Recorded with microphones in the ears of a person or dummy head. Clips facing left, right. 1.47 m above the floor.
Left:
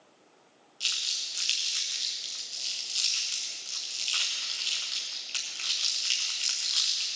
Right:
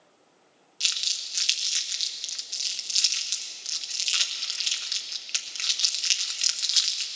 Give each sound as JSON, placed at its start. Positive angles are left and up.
{"t": 0.8, "sound": "crumpling", "side_deg": -20, "distance_m": 0.9}